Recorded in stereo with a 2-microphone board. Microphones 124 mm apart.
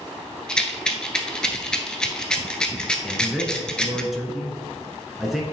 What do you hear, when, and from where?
0.5 s a rattle: 5° left (ahead or behind), 0.9 m
3.0 s a man speaking: centre (ahead or behind), 1.1 m